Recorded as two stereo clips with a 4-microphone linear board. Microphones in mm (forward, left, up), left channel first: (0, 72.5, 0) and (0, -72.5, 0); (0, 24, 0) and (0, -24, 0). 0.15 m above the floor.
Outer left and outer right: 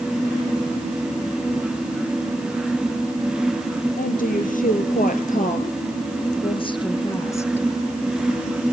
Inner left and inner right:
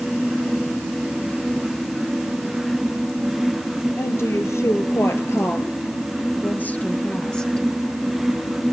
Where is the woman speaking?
70° left (ahead or behind), 3.5 m; by 7.7 s 15° left (ahead or behind), 2.5 m.